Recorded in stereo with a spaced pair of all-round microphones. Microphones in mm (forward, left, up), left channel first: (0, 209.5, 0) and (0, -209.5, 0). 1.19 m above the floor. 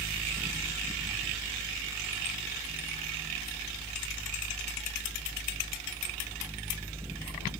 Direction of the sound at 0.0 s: 5° right (ahead or behind).